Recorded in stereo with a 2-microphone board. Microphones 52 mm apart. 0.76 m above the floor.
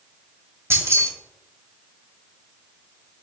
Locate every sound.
0.7 s keys jangling: 60° right (ahead or behind), 0.9 m